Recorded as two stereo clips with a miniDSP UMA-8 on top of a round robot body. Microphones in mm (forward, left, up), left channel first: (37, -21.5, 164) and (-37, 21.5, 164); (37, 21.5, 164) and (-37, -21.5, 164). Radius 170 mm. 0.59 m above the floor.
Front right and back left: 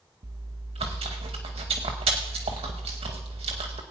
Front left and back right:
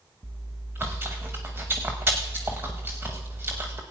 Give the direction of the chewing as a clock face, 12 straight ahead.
7 o'clock.